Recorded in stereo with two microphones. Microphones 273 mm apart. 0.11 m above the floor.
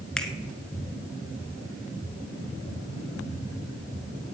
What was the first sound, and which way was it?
A finger snap, 5° left (ahead or behind).